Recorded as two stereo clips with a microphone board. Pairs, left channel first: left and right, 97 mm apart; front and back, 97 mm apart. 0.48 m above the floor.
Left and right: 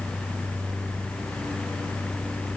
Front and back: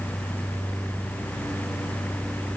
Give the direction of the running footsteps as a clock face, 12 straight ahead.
No running footsteps in this recording.